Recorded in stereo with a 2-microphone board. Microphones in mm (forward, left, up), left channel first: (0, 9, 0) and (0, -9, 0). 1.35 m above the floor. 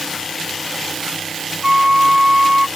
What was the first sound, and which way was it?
A flute, 35° right (ahead or behind).